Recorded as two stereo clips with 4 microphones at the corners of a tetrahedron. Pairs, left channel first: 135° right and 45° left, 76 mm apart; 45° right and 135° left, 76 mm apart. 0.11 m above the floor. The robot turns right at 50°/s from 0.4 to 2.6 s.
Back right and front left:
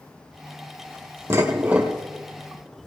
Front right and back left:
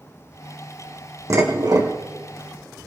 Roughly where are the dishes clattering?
Left.